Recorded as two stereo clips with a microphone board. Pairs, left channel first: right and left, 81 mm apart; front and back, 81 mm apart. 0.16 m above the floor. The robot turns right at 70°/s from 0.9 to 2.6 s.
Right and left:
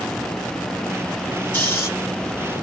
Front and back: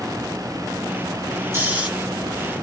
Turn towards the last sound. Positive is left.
turn(degrees=-70)